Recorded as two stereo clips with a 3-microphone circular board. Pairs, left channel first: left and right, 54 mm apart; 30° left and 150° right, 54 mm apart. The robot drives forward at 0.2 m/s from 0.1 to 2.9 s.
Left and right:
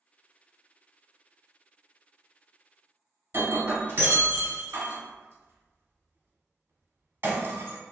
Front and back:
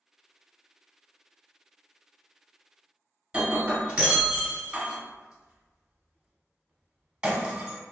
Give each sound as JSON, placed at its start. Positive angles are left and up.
{"t": 3.3, "sound": "breaking glass", "azimuth_deg": -90, "distance_m": 0.9}